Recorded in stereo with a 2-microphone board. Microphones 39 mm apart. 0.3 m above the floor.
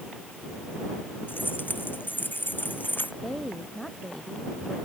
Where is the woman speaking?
15° left (ahead or behind).